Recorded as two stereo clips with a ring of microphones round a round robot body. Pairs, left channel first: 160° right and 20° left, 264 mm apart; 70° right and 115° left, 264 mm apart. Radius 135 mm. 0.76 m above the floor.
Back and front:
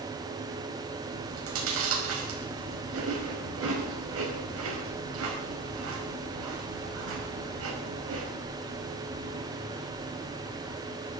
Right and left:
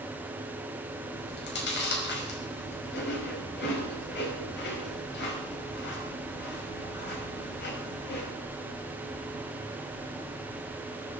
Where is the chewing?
15° right, 5 m.